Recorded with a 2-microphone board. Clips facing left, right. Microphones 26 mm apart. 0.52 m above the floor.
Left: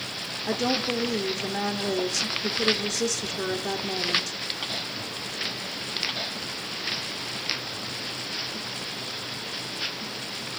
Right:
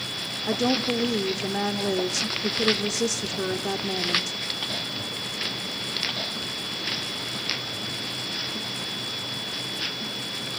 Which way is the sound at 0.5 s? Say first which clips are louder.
Right 2 dB; centre (ahead or behind).